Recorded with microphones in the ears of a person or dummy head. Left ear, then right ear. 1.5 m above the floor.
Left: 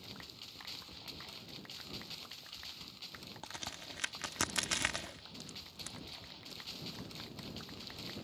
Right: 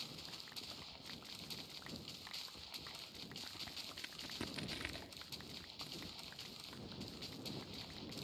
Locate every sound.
3.4 s a crack: 40° left (ahead or behind)